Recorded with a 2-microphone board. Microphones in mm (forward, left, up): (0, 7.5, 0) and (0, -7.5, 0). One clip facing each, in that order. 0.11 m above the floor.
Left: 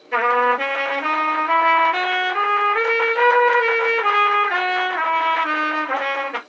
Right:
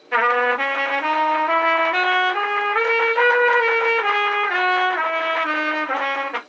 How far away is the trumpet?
About 2 m.